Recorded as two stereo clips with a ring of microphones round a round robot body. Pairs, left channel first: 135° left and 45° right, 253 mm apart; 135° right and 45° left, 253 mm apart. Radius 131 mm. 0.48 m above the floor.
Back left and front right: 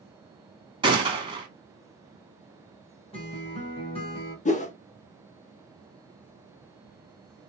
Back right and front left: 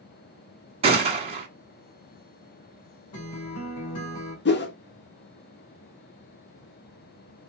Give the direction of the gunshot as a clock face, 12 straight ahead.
12 o'clock.